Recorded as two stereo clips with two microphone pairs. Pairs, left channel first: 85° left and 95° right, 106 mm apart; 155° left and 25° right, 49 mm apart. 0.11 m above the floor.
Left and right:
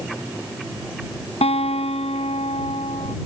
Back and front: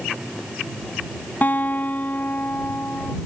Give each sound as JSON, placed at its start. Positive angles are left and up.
{"t": 1.4, "sound": "a guitar", "azimuth_deg": 105}